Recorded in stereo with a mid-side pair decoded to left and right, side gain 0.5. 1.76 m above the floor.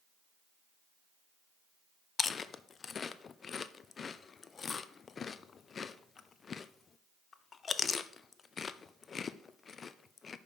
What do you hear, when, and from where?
2.2 s chewing: 40° left, 0.5 m